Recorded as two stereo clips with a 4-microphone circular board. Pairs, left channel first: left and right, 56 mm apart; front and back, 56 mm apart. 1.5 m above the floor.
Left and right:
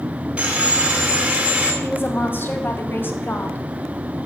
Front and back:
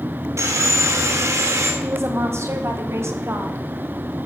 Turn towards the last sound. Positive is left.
turn(degrees=140)